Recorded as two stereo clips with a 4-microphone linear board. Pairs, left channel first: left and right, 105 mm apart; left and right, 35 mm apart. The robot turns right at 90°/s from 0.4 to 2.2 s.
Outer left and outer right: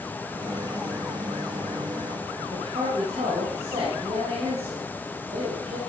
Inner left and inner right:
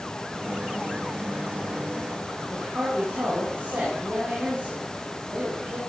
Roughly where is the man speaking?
Right.